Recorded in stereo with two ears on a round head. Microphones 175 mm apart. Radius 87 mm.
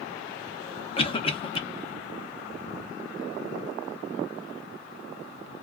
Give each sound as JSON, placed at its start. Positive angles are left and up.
{"t": 1.0, "sound": "a cough", "side_deg": 25, "distance_m": 0.7}